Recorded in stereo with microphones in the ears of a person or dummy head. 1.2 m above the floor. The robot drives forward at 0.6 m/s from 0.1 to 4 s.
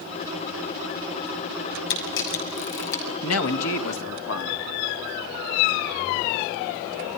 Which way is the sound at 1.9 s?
65° left (ahead or behind).